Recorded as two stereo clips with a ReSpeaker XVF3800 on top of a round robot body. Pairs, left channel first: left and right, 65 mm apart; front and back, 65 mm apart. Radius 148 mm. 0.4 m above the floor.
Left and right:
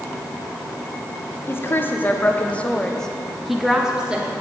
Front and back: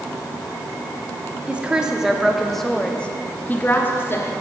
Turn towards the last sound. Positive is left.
turn(degrees=-25)